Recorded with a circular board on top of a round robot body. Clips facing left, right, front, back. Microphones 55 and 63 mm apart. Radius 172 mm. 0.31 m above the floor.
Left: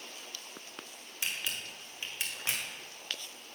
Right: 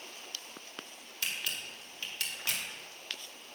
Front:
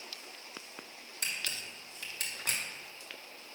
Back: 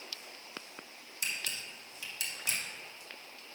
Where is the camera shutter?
30° left, 1.9 m.